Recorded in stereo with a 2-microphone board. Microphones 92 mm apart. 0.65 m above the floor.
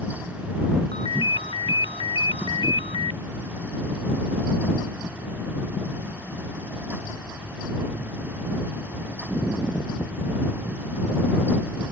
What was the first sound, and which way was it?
A ringtone, 85° left.